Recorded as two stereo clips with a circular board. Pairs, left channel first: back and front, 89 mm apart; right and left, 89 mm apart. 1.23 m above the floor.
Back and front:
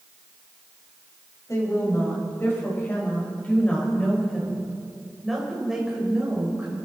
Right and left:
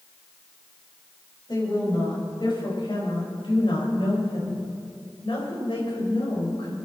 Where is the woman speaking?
125° right, 5.5 m; by 6.8 s 75° right, 4.5 m.